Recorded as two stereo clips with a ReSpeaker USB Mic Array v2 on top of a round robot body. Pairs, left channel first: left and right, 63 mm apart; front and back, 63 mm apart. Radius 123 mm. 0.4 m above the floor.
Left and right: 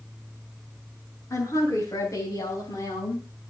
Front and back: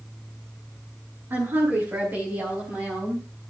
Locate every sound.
1.3 s a woman speaking: 130° left, 6.5 m; by 3.2 s 110° left, 4.5 m